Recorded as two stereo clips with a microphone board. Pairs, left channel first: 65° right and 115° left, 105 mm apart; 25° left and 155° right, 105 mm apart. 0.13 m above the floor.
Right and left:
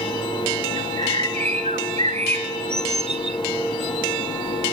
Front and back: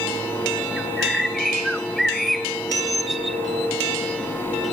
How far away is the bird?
About 0.9 m.